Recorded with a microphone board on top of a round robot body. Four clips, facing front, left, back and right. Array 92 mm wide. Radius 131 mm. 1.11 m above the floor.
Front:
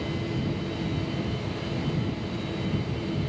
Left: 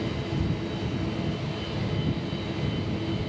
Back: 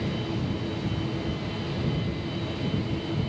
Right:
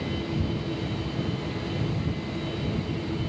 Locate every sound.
Only background noise.